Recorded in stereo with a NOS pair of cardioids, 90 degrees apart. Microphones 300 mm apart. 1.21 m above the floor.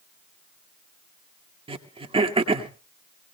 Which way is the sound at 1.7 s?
20° right.